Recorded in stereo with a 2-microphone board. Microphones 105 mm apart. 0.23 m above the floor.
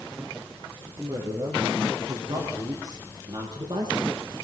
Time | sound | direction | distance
1.0 | a woman speaking | 35° right (ahead or behind) | 4 m